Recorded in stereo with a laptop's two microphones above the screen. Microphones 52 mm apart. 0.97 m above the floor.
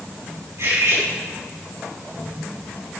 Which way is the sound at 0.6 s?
70° right (ahead or behind).